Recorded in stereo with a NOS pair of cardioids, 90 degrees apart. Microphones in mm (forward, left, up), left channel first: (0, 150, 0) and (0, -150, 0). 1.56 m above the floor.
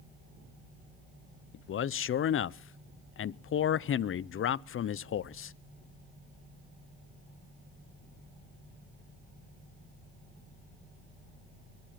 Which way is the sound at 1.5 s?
45° left.